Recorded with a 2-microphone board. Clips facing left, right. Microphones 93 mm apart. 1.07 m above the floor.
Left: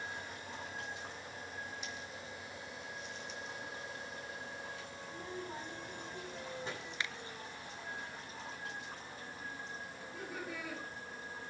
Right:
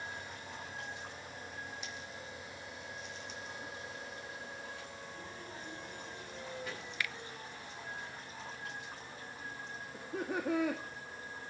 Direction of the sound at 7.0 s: 25° left (ahead or behind).